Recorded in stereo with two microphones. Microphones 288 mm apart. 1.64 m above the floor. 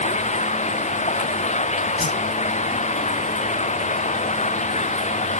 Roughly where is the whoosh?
Left.